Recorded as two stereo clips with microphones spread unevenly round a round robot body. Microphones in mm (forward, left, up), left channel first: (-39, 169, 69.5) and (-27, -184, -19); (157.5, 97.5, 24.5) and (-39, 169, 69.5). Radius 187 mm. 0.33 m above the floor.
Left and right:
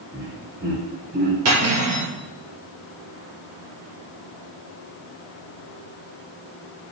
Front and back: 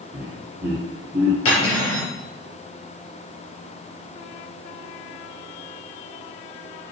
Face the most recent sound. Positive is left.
turn(degrees=-35)